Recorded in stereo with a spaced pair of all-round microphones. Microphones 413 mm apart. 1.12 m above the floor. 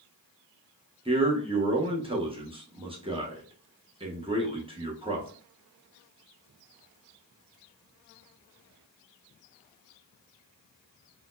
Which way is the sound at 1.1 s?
15° right (ahead or behind).